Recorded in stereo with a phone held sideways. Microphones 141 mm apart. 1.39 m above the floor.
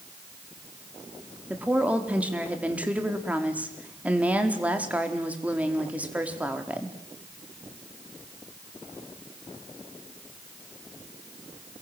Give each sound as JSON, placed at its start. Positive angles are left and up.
{"t": 1.5, "sound": "a woman speaking", "side_deg": -10, "distance_m": 4.0}